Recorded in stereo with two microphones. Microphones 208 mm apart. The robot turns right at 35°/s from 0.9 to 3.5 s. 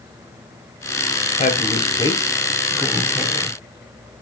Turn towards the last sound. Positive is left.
turn(degrees=-150)